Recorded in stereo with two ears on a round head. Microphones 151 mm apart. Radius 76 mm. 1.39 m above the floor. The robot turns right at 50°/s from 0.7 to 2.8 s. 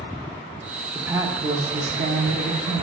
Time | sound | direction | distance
0.9 | a woman speaking | 175° right | 1.0 m